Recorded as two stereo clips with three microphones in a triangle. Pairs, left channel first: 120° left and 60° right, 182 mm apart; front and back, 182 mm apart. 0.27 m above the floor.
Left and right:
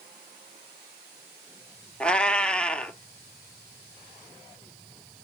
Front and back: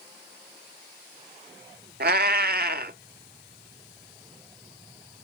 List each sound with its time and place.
2.0 s a cat meowing: 155° right, 0.5 m